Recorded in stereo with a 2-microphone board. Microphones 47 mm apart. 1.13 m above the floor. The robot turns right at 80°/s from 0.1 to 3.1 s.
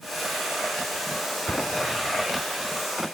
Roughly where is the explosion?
Left.